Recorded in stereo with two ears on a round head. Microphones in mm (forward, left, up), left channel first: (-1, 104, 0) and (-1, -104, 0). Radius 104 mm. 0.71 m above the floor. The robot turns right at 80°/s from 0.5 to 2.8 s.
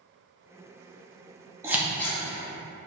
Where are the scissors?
10° right (ahead or behind), 0.7 m; by 2.2 s 15° left (ahead or behind), 0.7 m.